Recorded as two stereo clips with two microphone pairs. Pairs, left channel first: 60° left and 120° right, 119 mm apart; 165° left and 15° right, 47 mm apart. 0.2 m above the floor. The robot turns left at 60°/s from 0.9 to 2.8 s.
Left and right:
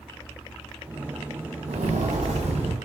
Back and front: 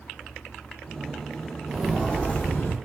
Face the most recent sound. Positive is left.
turn(degrees=-160)